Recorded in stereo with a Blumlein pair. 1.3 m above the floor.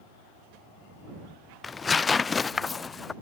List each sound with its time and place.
1.6 s tearing paper: 15° left